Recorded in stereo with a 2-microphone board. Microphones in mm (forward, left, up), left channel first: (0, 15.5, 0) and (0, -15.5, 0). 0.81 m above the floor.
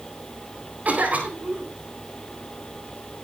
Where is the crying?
I don't hear crying.